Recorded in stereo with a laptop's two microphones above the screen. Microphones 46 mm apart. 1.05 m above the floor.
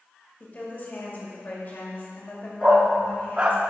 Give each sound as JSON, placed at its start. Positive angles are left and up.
{"t": 0.4, "sound": "a woman speaking", "side_deg": 40, "distance_m": 2.0}
{"t": 2.6, "sound": "a dog barking", "side_deg": -25, "distance_m": 0.6}